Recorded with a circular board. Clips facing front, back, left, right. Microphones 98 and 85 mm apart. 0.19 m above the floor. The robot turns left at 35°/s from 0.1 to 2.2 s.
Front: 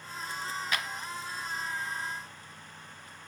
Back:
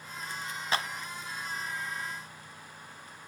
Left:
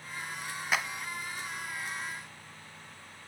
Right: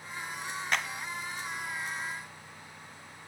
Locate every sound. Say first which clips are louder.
0.7 s a clap: back 5 dB, left 1 dB; 170° left, 0.9 m; by 0.9 s 165° left, 0.9 m